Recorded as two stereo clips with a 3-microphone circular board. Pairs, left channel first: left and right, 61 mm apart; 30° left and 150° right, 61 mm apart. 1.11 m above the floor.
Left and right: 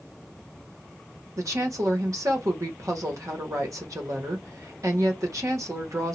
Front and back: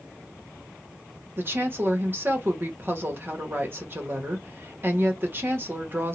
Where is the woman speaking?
100° right, 1.2 m.